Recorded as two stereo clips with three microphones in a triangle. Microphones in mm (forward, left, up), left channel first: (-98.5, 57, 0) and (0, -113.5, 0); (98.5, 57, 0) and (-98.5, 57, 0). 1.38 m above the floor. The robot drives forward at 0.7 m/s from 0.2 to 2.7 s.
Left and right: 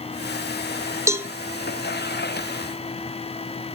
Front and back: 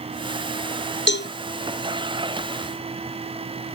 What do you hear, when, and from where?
1.1 s a cowbell: 15° left, 0.7 m